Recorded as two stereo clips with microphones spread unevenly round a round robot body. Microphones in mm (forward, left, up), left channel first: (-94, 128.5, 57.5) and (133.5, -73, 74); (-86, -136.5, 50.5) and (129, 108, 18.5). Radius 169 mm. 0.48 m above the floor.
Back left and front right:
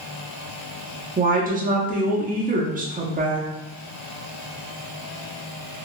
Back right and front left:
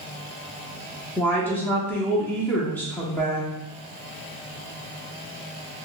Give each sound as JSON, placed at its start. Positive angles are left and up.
{"t": 1.2, "sound": "a woman speaking", "azimuth_deg": -40, "distance_m": 0.8}